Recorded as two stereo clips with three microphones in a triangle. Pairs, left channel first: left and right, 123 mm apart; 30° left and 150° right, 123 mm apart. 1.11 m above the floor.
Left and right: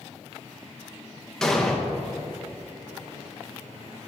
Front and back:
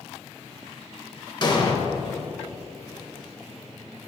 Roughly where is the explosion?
Ahead.